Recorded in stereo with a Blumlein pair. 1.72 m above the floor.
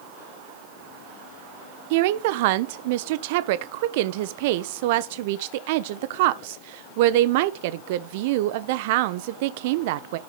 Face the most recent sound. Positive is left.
turn(degrees=-50)